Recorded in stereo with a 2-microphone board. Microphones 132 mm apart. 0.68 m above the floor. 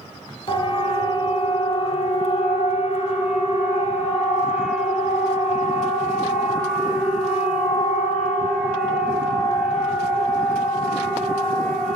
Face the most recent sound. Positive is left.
turn(degrees=85)